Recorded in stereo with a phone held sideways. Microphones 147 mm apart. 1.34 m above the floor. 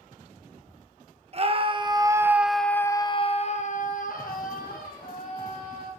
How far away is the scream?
About 1.3 m.